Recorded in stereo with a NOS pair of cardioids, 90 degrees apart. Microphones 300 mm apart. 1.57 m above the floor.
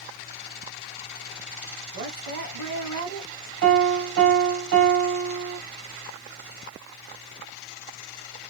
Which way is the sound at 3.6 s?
55° right.